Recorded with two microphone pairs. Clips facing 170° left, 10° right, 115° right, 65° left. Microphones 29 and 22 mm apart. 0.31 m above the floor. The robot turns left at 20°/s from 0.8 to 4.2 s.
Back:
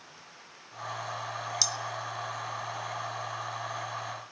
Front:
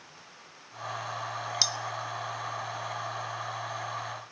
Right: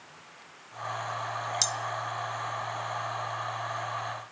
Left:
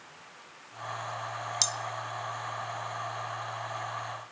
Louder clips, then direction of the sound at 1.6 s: Front 3 dB, left 1 dB; 30° right.